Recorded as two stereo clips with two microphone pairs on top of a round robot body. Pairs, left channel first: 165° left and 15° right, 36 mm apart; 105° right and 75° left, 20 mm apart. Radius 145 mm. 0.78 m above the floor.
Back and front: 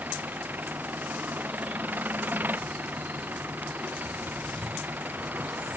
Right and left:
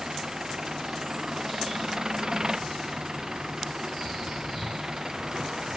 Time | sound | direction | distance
0.0 | an engine running | 15° left | ?